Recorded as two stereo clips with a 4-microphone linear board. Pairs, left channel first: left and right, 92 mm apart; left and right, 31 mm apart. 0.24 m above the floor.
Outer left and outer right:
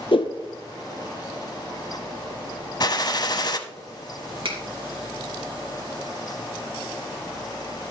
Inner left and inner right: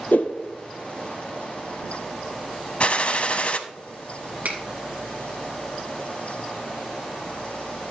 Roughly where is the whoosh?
Left.